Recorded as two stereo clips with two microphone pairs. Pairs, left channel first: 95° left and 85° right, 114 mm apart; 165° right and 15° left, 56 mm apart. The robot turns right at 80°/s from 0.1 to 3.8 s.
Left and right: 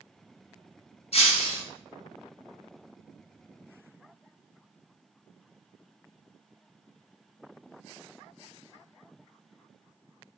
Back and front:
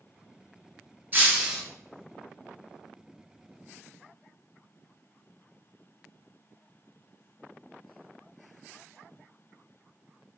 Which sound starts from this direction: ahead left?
Breaking glass, at 1.1 s.